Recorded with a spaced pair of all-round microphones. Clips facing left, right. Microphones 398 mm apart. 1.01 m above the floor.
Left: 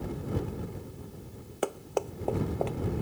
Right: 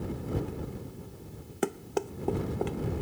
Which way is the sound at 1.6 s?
35° right (ahead or behind).